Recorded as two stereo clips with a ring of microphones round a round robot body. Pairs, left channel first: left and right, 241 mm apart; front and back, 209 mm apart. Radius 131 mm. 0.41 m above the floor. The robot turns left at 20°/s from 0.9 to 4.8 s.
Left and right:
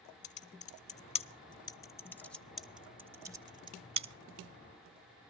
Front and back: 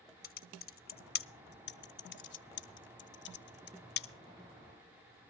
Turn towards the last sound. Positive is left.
turn(degrees=-45)